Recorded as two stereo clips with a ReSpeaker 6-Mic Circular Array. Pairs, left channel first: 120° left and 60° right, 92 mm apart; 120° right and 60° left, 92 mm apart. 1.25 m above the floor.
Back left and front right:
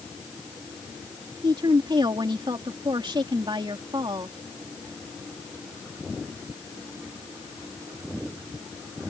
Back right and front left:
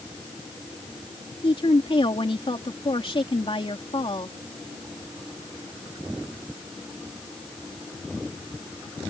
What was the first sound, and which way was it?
A woman speaking, 100° right.